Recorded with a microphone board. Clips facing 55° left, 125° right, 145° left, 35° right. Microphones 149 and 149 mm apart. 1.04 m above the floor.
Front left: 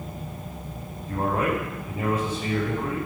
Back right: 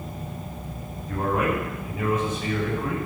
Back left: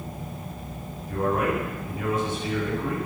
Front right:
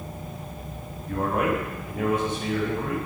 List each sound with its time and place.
1.1 s a man speaking: 5° right, 7 m; by 3.0 s straight ahead, 8 m